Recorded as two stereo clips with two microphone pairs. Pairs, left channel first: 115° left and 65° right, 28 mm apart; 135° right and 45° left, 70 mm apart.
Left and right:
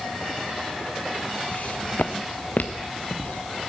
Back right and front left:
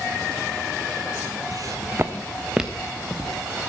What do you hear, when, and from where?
1.5 s footsteps: 85° left, 0.9 m; by 3.7 s 150° left, 1.6 m